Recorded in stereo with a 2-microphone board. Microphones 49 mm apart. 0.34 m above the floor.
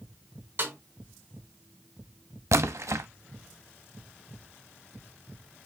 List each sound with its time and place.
0.6 s a snare drum: 45° right (ahead or behind), 2.5 m
2.5 s a splash: 75° right (ahead or behind), 0.5 m